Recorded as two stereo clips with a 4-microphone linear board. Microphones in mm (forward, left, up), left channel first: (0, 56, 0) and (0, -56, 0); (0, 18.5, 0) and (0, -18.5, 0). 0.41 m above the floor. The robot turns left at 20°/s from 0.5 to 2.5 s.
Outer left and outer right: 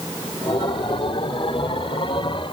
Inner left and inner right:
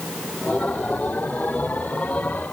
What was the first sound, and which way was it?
Only background noise.